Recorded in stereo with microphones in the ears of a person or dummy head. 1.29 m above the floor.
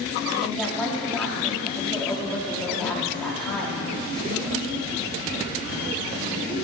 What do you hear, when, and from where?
0.4 s a woman speaking: 10° left (ahead or behind), 3 m